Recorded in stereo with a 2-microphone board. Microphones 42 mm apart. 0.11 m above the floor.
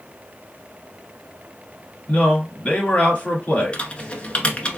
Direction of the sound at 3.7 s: 25° left (ahead or behind).